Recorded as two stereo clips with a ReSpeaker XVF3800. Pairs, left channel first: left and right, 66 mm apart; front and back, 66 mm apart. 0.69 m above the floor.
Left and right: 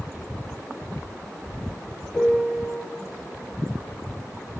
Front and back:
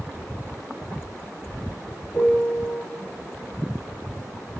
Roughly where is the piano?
Ahead left.